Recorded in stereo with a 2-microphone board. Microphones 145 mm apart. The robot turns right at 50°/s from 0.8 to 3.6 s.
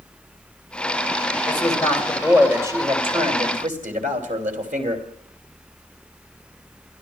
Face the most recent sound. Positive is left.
turn(degrees=-110)